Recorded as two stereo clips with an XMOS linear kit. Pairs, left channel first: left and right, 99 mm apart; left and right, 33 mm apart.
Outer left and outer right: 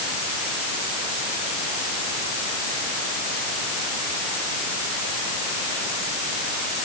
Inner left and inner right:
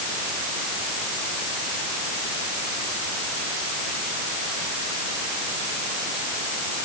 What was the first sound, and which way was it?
Only background noise.